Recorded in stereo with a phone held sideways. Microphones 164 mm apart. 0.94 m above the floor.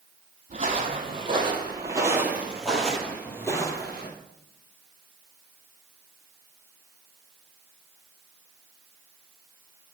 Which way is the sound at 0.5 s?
45° right (ahead or behind).